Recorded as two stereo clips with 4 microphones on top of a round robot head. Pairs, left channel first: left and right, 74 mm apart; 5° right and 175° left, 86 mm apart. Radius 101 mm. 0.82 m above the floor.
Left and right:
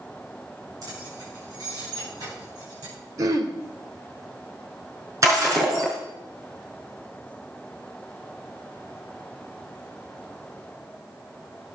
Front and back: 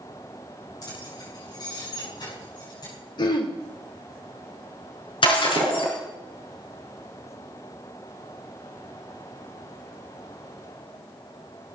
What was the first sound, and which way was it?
Keys jangling, 50° right.